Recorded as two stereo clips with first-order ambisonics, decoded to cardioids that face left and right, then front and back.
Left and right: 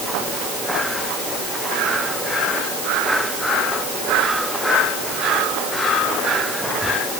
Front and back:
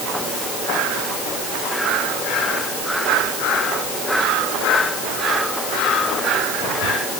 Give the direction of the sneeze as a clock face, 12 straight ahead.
I don't hear a sneeze.